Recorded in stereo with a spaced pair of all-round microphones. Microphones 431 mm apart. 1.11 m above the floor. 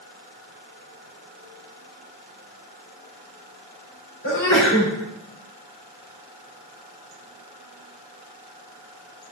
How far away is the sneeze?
About 4 m.